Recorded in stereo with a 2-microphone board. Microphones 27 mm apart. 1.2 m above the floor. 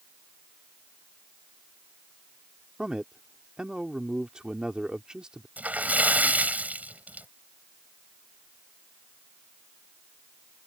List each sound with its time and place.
2.8 s a man speaking: 30° right (ahead or behind)
5.6 s a splash: 75° right (ahead or behind)